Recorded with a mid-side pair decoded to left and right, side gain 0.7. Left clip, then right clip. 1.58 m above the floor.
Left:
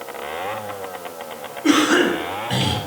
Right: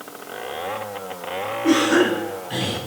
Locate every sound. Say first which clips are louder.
1.6 s a cough: left 2 dB; 30° left, 6 m